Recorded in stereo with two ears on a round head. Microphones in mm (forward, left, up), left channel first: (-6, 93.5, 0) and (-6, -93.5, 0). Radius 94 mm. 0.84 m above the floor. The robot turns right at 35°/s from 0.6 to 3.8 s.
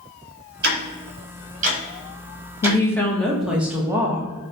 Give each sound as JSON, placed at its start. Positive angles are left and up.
{"t": 0.6, "sound": "ticking", "side_deg": -50, "distance_m": 0.9}
{"t": 2.6, "sound": "a woman speaking", "azimuth_deg": 155, "distance_m": 0.6}